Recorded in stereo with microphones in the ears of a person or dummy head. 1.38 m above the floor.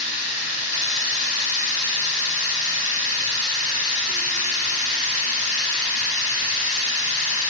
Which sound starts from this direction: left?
Running water, at 0.0 s.